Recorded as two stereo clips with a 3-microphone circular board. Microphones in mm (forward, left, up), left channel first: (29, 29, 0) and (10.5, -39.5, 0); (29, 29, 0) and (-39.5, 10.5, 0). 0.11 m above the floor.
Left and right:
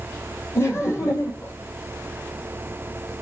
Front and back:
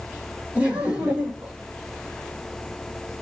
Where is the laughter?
125° left, 4 m.